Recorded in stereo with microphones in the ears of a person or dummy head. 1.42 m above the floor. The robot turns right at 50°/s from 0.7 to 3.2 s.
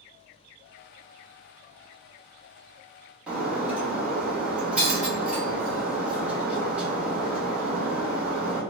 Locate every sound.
3.3 s breaking glass: centre (ahead or behind), 1.2 m